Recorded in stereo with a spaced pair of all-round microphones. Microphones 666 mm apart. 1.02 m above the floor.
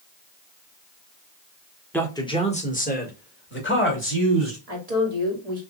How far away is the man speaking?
About 1.0 m.